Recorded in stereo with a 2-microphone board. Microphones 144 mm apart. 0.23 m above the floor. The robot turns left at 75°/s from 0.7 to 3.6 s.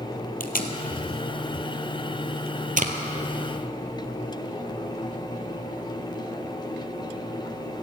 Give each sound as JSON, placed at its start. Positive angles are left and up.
{"t": 0.4, "sound": "tape being pulled", "side_deg": 85, "distance_m": 1.2}